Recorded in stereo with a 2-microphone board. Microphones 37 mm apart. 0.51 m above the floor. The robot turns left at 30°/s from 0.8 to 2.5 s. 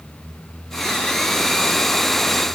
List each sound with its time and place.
Only background noise.